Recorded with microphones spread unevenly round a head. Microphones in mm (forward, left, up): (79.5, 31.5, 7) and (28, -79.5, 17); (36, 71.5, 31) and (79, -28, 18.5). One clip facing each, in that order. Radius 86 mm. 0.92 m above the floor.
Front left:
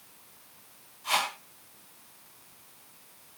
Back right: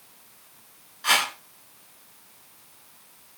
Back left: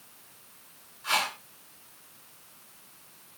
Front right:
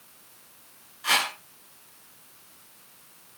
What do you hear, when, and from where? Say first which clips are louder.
1.0 s a whoosh: back right 3 dB, front right 2 dB; 110° right, 7 m